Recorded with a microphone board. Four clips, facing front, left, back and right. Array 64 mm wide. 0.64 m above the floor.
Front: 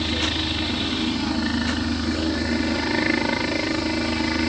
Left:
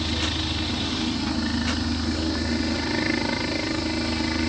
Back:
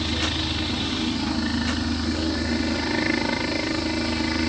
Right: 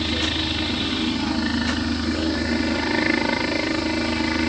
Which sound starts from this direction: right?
A helicopter, at 0.0 s.